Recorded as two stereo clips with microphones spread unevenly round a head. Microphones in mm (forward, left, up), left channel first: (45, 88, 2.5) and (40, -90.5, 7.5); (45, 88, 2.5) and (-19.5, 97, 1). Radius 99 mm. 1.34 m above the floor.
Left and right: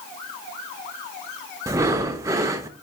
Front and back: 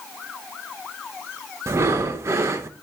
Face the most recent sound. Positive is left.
turn(degrees=-160)